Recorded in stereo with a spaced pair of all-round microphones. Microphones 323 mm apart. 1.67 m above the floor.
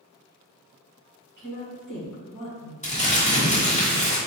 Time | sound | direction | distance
1.4 | a woman speaking | 75° left (ahead or behind) | 1.9 m
2.8 | crumpling | 20° left (ahead or behind) | 1.3 m